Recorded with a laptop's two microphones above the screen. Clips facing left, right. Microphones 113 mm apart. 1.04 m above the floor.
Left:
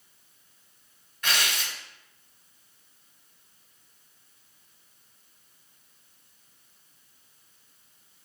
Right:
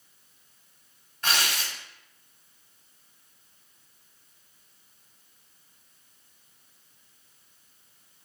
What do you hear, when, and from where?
1.2 s tearing paper: 35° right (ahead or behind), 1.3 m